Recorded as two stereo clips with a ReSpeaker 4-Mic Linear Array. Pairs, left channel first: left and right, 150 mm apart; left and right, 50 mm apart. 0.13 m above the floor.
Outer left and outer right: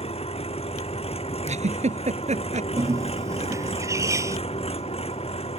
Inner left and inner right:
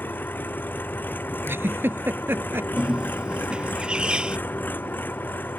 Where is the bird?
20° right (ahead or behind).